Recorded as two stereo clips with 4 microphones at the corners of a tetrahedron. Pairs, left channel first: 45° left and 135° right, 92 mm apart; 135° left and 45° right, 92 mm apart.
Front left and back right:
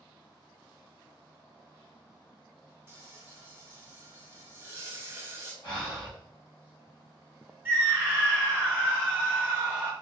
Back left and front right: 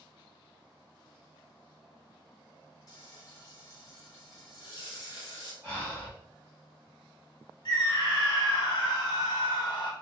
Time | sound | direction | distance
2.9 | frying | 170° left | 0.9 m
5.6 | breathing | 10° left | 1.8 m
7.7 | a scream | 160° left | 1.2 m